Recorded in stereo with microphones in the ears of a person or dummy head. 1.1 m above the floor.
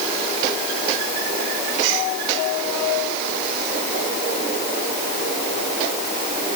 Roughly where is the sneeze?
No sneeze in this recording.